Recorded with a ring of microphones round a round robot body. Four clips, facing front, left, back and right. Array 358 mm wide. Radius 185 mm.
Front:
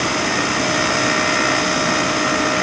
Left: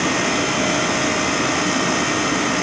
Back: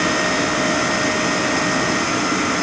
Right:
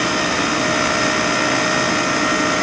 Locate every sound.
Only background noise.